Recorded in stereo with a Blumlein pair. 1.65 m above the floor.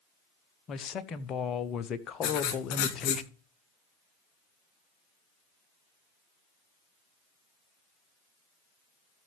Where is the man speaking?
25° left, 1.0 m.